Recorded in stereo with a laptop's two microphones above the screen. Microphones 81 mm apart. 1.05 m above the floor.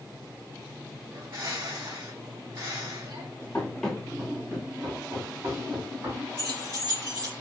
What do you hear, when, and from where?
1.1 s a bird: 70° right (ahead or behind), 2 m
3.5 s running footsteps: 15° left (ahead or behind), 1.4 m; by 6.2 s 65° right (ahead or behind), 2.5 m
6.4 s keys jangling: 85° right, 2 m